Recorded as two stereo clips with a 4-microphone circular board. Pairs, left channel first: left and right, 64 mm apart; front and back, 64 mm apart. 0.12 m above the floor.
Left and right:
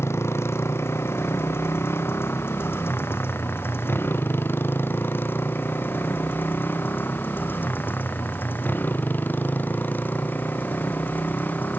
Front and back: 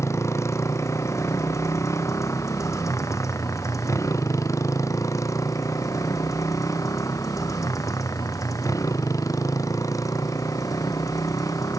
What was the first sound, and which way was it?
A motorcycle, 40° left.